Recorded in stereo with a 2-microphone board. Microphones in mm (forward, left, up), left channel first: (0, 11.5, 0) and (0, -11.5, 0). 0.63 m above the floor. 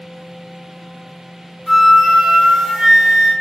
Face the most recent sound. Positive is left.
turn(degrees=-30)  # may be behind; listen again after turning